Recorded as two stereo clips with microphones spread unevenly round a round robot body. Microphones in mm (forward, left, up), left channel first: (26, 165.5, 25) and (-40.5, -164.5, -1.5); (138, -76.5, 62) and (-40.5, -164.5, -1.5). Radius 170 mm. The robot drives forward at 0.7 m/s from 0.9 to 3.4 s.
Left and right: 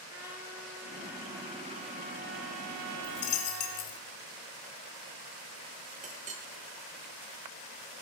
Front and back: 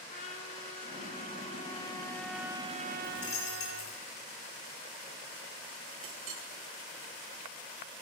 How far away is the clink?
About 0.9 m.